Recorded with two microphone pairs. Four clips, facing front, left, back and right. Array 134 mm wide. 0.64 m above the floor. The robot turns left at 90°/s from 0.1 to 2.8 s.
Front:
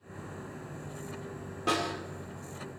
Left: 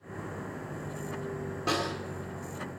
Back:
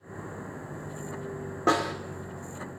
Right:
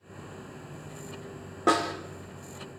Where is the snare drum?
135° right, 1.3 m; by 1.9 s 160° right, 1.3 m.